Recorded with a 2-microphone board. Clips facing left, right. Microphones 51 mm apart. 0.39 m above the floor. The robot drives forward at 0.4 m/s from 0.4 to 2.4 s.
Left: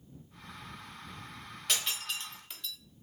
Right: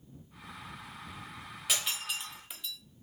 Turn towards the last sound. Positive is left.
turn(degrees=-10)  # may be behind; listen again after turning